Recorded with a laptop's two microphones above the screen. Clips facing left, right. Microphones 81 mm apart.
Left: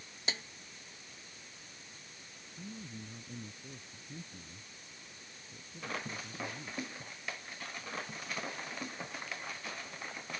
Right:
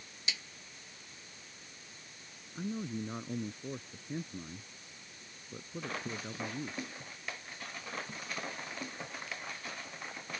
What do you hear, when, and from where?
0.3 s a snare drum: 40° left (ahead or behind)
2.5 s a man speaking: 65° right (ahead or behind)